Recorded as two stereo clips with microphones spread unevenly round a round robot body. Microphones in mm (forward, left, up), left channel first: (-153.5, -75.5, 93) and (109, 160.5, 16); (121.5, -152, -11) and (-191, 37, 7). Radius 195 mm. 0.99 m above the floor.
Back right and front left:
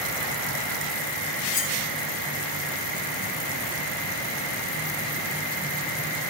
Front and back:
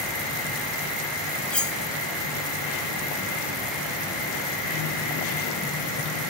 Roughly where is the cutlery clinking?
Behind right.